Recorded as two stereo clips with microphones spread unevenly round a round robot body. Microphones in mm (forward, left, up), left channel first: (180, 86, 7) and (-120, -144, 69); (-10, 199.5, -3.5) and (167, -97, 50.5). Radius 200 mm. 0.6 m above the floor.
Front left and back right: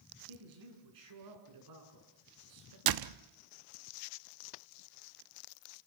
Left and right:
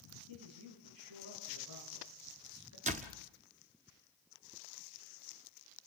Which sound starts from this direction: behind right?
A door slam, at 2.9 s.